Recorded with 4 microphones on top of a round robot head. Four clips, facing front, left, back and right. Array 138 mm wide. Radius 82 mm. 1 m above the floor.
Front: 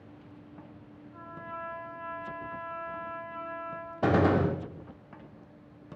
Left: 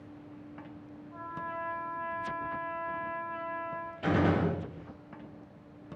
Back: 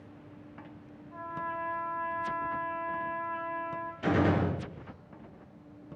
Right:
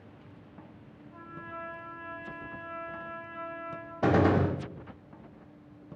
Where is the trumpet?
155° left, 3 m.